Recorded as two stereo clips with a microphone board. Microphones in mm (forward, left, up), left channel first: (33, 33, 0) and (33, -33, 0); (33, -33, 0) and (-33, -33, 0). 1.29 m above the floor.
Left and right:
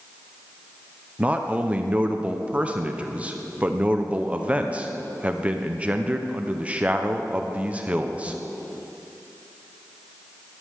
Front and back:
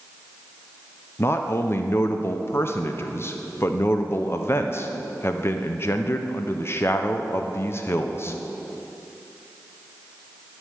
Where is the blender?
I don't hear a blender.